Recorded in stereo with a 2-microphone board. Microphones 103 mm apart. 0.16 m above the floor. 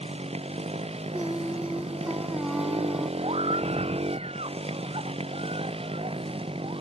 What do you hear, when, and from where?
0.0 s a motorcycle: 90° right; by 6.8 s 70° right (ahead or behind)
1.1 s singing: 10° right (ahead or behind)
3.2 s a scream: 80° right